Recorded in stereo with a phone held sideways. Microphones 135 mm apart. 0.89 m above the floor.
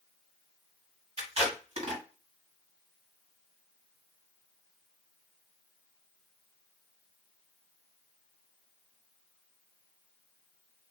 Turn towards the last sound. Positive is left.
turn(degrees=-50)  # may be behind; listen again after turning